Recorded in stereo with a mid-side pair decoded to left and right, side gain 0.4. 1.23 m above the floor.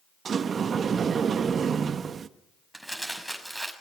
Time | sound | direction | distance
0.2 | a sliding door | 55° right | 1.0 m
2.7 | crumpling | 5° right | 6 m